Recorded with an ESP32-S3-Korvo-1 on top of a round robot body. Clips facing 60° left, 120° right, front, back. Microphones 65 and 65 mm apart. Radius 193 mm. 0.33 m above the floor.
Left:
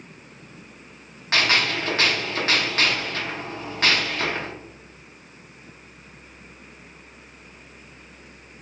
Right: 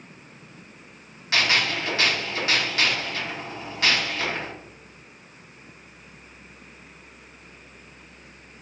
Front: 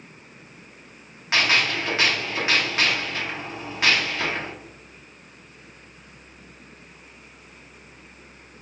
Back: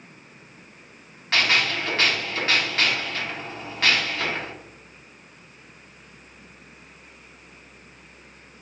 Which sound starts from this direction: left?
A gunshot, at 1.3 s.